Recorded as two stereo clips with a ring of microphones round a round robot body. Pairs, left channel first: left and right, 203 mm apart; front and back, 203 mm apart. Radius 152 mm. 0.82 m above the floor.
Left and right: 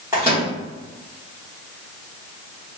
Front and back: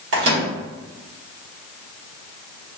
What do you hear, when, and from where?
0.1 s a microwave: 170° right, 1.4 m